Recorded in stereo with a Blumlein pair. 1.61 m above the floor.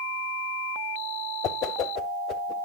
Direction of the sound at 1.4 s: 35° left.